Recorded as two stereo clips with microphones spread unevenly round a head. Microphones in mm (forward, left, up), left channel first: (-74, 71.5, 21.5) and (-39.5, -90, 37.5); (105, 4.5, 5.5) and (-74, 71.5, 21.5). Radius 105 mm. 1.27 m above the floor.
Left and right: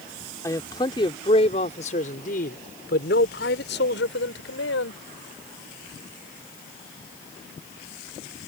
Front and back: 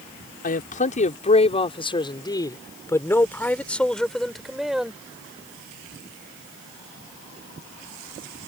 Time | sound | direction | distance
0.4 | a man speaking | 25° left | ?